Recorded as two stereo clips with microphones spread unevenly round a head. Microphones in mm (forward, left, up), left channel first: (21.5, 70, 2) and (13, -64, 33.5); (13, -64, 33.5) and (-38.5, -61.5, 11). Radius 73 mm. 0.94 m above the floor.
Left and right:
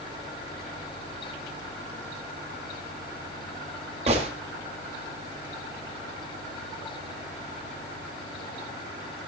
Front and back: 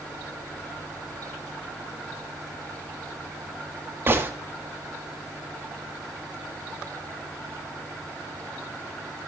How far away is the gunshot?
About 1.8 m.